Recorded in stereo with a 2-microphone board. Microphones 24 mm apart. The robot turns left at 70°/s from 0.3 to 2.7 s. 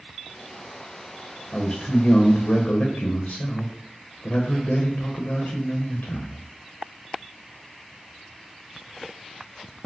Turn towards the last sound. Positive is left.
turn(degrees=75)